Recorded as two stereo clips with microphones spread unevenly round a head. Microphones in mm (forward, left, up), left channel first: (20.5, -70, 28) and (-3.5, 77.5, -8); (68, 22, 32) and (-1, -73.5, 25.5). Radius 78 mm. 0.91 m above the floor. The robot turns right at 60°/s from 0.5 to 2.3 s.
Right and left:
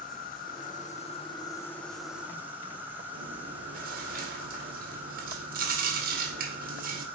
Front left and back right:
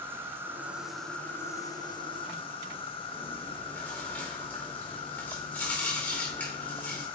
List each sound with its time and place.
0.0 s an insect: 65° right, 1.3 m; by 7.2 s 40° left, 1.3 m
3.1 s chewing: 135° left, 1.9 m